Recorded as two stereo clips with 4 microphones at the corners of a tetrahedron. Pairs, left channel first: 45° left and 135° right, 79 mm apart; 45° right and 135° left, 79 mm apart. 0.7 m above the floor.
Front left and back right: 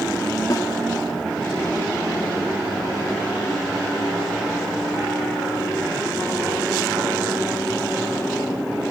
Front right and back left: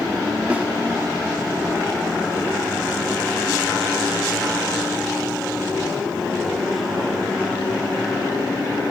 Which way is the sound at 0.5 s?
70° left.